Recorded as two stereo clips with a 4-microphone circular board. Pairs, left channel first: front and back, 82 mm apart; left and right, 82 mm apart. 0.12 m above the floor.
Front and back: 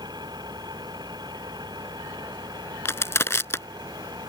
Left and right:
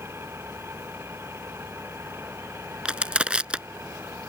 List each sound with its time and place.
0.0 s an engine running: 150° right
2.9 s crushing: 20° right